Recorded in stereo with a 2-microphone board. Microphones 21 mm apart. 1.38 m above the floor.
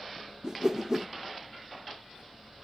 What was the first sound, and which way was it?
A whoosh, 30° right (ahead or behind).